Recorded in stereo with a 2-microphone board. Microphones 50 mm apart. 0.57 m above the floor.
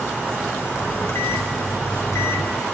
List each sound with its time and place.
0.8 s a microwave: 70° left (ahead or behind), 1.6 m